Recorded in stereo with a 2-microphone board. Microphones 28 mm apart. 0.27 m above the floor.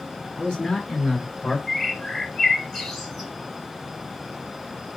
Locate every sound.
0.3 s a man speaking: 35° left (ahead or behind), 5 m; by 1.6 s 20° left (ahead or behind), 3.5 m
1.7 s a bird: 15° left (ahead or behind), 3 m